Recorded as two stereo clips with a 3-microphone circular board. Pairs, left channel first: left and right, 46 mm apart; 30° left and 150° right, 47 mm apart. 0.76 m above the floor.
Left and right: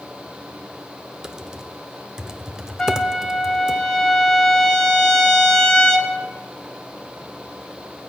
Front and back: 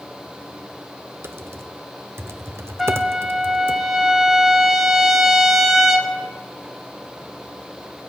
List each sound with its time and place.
1.2 s typing on a keyboard: 165° right, 0.6 m
2.8 s a trumpet: 130° left, 1.0 m